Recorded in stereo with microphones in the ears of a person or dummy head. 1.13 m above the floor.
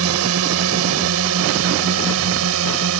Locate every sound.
0.0 s a drone: 75° right (ahead or behind)